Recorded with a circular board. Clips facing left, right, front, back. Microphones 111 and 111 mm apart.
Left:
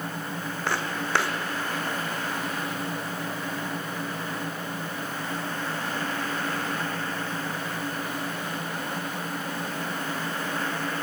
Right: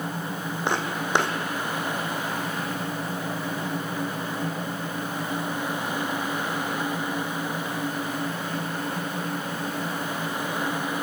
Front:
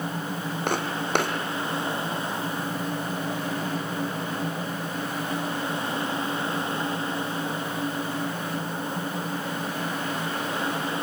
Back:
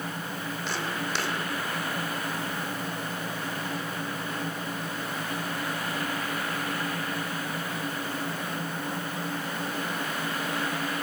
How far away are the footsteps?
About 1.9 m.